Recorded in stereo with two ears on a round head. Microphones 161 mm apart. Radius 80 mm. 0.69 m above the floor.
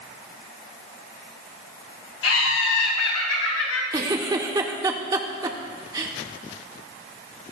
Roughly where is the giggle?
Centre.